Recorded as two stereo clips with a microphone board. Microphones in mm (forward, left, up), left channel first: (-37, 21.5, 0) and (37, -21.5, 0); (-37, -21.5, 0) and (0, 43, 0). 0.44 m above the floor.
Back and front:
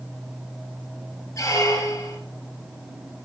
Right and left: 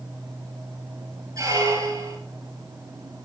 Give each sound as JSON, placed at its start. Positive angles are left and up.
{"t": 1.4, "sound": "a squeak", "azimuth_deg": 100, "distance_m": 2.0}